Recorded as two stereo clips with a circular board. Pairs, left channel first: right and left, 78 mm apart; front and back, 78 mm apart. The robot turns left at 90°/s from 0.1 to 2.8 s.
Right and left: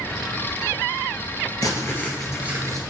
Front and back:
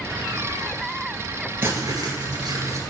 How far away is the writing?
About 1.2 m.